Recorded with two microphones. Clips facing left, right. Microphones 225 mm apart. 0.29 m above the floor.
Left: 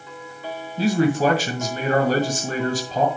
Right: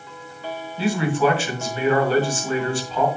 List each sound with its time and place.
0.8 s a man speaking: 40° left (ahead or behind), 1.9 m